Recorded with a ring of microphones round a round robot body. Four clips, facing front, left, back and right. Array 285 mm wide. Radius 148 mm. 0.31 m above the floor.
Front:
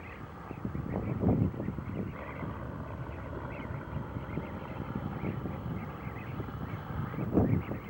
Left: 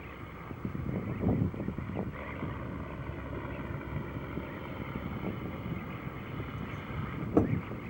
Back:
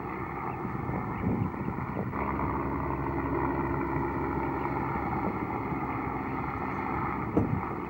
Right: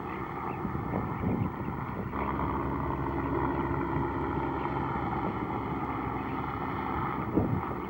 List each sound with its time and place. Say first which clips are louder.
0.0 s a helicopter: right 10 dB, back 11 dB; 140° right